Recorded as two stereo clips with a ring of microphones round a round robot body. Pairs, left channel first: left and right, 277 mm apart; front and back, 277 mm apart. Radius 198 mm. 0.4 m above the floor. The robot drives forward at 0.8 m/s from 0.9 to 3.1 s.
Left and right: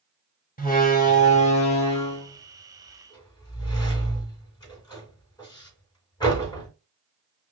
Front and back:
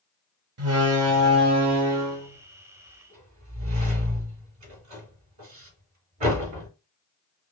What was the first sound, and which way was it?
A door slam, 150° left.